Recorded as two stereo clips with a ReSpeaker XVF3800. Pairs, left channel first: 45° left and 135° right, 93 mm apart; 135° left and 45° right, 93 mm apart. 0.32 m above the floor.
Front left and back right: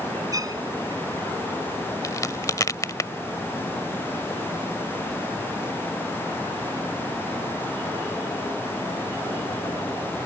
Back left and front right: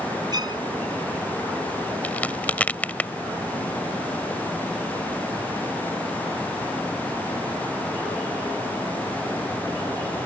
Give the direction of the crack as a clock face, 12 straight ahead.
10 o'clock.